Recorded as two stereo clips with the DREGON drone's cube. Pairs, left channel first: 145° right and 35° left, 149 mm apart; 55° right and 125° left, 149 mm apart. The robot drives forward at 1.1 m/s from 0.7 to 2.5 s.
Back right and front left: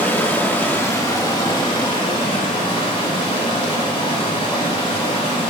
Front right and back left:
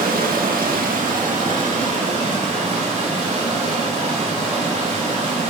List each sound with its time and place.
0.0 s running water: 140° left, 1.3 m; by 5.5 s 165° left, 3 m